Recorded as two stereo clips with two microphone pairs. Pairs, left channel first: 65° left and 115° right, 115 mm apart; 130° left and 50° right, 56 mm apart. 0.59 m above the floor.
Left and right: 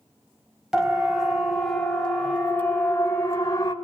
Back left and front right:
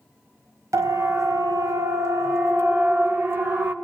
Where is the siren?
30° right, 4 m; by 3.8 s 5° left, 3 m.